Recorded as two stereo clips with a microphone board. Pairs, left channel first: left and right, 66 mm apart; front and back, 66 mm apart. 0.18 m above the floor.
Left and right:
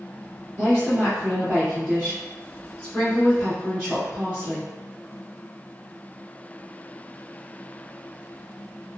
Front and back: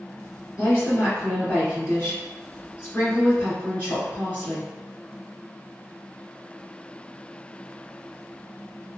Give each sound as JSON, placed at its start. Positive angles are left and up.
{"t": 0.6, "sound": "a woman speaking", "azimuth_deg": -20, "distance_m": 1.5}